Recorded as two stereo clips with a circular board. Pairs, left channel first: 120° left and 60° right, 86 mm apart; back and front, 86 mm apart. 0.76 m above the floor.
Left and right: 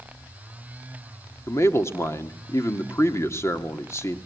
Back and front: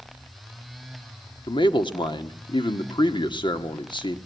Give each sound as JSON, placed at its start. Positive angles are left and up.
{"t": 1.5, "sound": "a man speaking", "azimuth_deg": 175, "distance_m": 1.5}